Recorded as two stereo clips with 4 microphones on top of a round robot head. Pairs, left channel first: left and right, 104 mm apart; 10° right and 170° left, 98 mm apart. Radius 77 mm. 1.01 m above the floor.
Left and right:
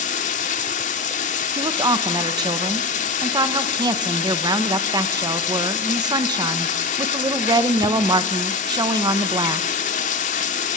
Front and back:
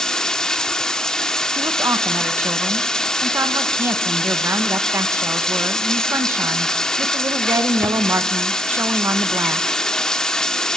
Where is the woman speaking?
130° right, 1.2 m.